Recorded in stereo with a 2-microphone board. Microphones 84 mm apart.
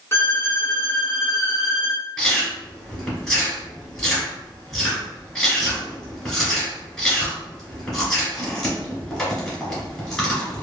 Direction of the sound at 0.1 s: 30° left (ahead or behind).